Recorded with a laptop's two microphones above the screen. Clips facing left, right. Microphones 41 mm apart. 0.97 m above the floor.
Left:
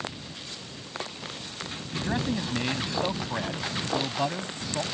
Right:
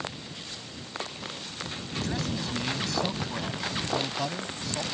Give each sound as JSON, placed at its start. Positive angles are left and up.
{"t": 1.9, "sound": "a man speaking", "side_deg": 25}